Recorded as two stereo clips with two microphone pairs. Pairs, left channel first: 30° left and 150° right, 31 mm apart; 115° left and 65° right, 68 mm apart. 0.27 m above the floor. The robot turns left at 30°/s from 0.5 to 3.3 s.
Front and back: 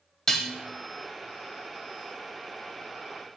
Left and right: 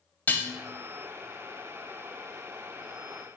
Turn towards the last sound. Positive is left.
turn(degrees=0)